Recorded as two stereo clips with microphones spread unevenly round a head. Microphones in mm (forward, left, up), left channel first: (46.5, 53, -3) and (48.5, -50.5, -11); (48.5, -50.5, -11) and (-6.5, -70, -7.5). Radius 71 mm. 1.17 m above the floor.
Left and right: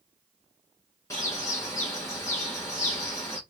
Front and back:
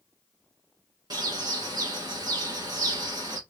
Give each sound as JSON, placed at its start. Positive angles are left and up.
{"t": 1.1, "sound": "a bird", "azimuth_deg": 160, "distance_m": 1.1}